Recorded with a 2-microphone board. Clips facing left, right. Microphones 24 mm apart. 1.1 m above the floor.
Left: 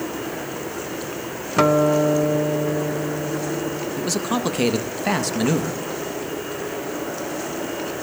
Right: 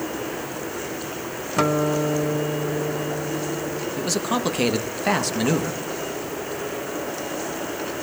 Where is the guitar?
10° left (ahead or behind), 0.7 m.